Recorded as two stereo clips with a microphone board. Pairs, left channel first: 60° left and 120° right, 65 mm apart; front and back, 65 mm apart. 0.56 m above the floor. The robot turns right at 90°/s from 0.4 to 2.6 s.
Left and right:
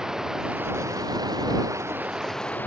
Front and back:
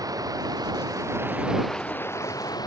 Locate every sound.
0.0 s running water: 160° left; by 2.7 s 5° right